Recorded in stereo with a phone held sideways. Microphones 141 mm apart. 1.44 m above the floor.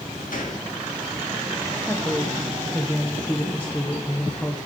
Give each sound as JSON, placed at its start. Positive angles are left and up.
{"t": 0.3, "sound": "a gunshot", "side_deg": 70, "distance_m": 1.6}
{"t": 1.8, "sound": "a woman speaking", "side_deg": 15, "distance_m": 0.9}